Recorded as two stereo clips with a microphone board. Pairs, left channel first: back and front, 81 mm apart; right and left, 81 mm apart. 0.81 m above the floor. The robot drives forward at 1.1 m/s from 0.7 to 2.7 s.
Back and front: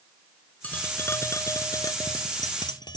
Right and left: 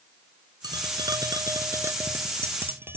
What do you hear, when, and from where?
0.6 s tapping: 110° left; by 3.0 s 150° left